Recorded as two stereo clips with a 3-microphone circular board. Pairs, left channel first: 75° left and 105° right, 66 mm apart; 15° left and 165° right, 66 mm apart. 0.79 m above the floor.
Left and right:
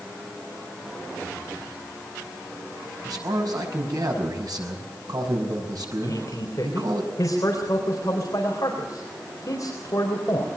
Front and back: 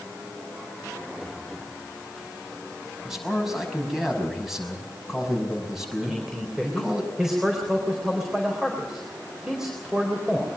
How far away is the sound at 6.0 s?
About 4 m.